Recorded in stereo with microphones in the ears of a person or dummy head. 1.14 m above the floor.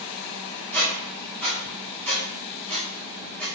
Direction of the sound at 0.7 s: 10° left (ahead or behind).